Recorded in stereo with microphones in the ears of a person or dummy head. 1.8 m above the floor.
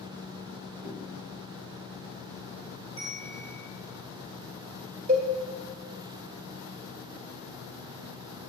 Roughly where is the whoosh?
Centre.